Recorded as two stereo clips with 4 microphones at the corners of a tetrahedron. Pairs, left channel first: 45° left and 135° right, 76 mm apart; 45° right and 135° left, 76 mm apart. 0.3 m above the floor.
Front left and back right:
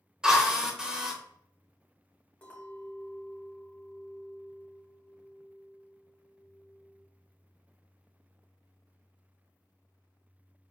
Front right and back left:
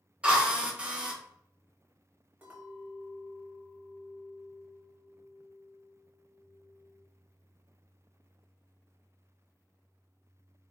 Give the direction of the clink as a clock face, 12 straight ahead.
9 o'clock.